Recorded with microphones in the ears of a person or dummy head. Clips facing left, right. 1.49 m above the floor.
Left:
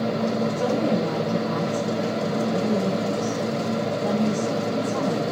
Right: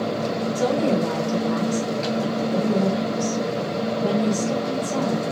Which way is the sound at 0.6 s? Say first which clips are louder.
Right 5 dB; 55° right (ahead or behind).